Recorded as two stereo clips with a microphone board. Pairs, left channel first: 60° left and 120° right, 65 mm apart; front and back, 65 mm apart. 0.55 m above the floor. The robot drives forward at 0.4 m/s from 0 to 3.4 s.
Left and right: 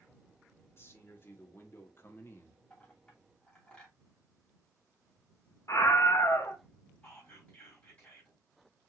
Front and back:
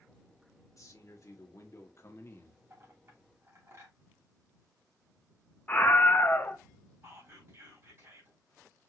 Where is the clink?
125° left, 3.5 m; by 4.0 s 130° left, 3.5 m.